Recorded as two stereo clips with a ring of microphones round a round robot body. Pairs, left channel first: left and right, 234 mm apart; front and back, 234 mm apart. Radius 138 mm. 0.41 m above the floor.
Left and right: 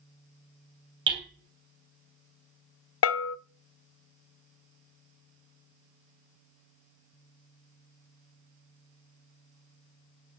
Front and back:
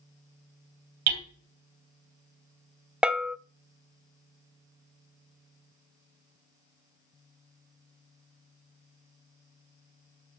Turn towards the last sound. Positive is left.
turn(degrees=95)